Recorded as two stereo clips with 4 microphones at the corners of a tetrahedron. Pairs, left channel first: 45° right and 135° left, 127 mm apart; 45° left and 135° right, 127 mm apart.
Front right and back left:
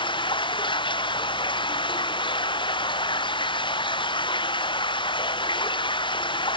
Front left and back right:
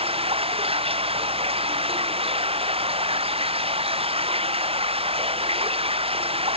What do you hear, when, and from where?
0.0 s running water: 95° right